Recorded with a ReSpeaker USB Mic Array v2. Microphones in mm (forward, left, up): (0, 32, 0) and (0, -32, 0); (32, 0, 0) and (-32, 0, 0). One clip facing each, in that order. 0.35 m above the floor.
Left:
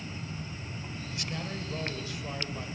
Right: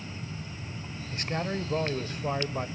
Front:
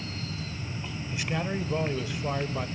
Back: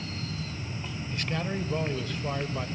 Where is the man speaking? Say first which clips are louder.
Right 7 dB, front 1 dB; 75° right, 1.3 m.